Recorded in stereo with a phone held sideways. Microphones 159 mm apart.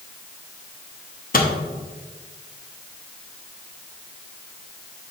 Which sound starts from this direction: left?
A microwave, at 1.3 s.